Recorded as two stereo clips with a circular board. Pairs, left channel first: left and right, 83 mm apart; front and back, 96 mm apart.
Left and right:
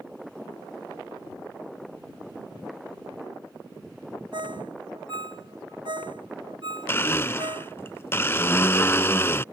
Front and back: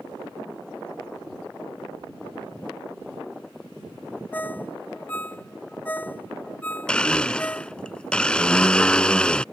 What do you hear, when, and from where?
4.3 s a ringtone: 70° right
6.9 s a blender: 70° left